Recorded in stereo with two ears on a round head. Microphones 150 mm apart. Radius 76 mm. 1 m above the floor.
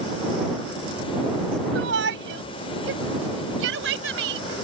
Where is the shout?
80° right.